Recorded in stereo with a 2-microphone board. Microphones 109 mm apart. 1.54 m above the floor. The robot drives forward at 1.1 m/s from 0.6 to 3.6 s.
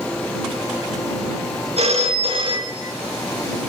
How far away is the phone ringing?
About 1.7 m.